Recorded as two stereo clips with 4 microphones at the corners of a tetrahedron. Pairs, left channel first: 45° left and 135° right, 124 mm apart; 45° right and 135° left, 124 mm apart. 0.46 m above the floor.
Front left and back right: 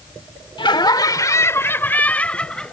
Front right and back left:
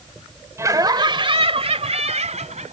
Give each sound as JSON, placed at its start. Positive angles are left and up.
{"t": 0.6, "sound": "laughter", "azimuth_deg": 80}